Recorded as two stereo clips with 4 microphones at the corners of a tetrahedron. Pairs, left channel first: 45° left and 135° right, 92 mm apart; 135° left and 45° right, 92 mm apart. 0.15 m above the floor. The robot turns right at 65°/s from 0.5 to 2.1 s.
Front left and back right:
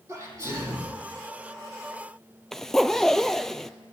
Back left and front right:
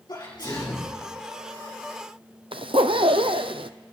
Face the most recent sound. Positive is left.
turn(degrees=-40)